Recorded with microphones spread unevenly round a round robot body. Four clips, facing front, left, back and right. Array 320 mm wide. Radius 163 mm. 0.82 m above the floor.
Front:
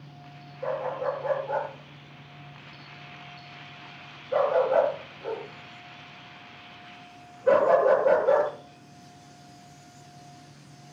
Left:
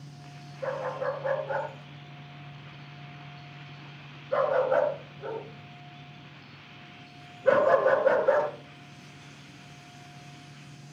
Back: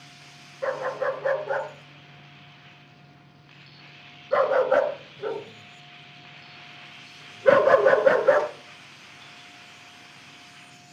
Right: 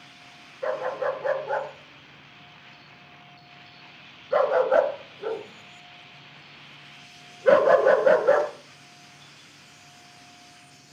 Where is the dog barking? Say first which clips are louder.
Right 4 dB, back 2 dB; 155° right, 5 m.